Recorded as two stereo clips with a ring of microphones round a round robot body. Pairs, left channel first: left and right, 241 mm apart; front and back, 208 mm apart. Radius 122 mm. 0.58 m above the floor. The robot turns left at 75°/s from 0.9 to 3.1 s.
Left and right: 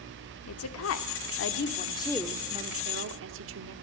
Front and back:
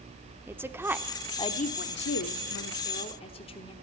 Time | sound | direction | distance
0.5 | a woman speaking | 100° left | 1.2 m